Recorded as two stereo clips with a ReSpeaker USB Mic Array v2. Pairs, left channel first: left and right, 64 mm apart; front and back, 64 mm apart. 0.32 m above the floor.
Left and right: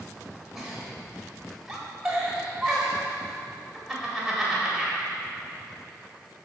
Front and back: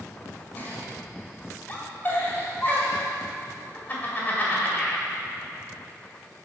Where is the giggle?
5° right, 1.7 m.